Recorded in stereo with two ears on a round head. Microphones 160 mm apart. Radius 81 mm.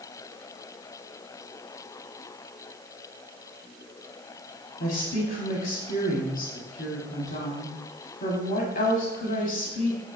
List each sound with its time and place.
4.8 s a woman speaking: 50° left (ahead or behind), 1.9 m